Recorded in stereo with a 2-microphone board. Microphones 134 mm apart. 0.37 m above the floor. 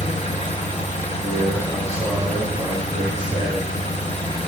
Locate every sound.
0.0 s an engine running: 60° left (ahead or behind), 1.5 m
1.2 s a man speaking: 25° right (ahead or behind), 3.5 m